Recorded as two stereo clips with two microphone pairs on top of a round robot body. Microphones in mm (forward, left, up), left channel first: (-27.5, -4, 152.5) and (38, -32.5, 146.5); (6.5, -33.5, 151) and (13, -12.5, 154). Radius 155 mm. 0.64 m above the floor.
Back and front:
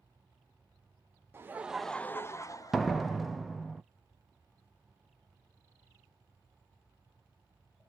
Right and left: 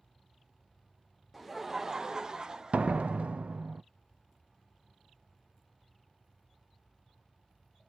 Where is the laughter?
25° right, 0.6 m; by 3.2 s 135° left, 1.1 m.